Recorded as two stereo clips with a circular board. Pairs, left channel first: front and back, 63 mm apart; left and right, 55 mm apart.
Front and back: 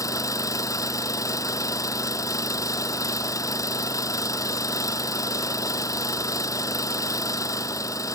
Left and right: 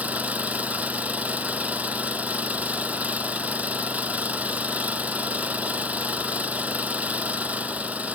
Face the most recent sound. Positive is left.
turn(degrees=-30)